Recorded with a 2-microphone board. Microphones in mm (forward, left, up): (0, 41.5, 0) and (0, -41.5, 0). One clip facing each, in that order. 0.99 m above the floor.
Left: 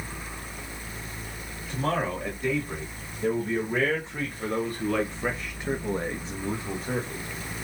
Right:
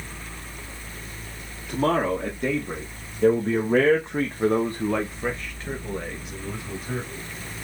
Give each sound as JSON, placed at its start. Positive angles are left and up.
{"t": 1.7, "sound": "a man speaking", "side_deg": -80, "distance_m": 1.9}